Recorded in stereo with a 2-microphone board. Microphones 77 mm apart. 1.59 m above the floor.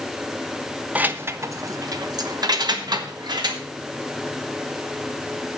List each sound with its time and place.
0.9 s keys jangling: 20° right (ahead or behind), 0.6 m; by 3.6 s 70° right (ahead or behind), 1.8 m